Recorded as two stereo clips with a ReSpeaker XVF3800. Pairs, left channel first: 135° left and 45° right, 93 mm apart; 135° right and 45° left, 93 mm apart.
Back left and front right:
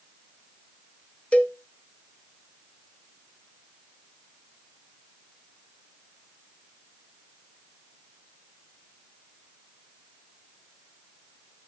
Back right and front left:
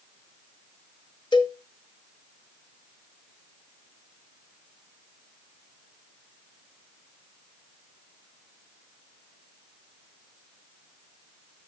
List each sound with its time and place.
1.3 s a cowbell: 150° right, 1.3 m